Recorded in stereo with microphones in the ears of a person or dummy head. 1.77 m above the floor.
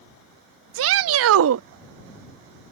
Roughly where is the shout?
Right.